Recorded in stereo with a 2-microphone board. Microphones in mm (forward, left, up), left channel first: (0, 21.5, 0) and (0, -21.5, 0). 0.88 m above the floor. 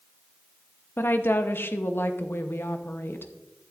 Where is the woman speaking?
60° left (ahead or behind), 0.8 m.